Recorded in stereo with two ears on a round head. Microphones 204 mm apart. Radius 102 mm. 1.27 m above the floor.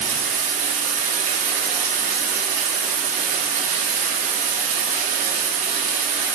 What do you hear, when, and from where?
0.0 s running water: 35° right (ahead or behind), 0.9 m